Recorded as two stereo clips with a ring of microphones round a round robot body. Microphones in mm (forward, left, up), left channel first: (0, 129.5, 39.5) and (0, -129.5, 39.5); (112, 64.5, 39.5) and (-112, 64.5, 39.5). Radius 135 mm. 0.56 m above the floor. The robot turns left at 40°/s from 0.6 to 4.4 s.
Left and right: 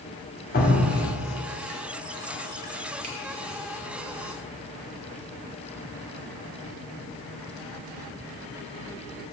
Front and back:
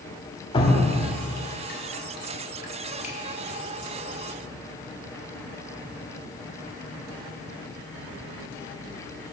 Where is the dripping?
60° left, 1.6 m; by 3.1 s 45° right, 1.6 m.